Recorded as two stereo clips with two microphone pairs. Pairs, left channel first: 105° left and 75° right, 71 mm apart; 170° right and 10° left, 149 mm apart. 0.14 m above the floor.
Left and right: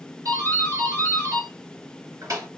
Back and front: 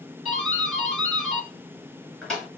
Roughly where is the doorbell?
Right.